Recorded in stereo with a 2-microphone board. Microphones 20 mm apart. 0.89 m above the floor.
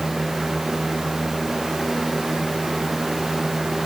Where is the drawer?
No drawer in this recording.